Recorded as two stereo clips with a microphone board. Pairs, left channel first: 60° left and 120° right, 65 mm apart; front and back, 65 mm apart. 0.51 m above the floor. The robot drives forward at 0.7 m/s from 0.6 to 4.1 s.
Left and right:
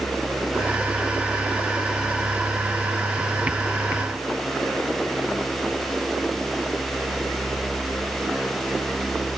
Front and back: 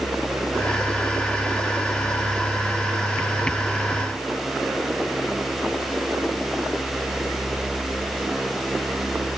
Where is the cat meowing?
No cat meowing in this recording.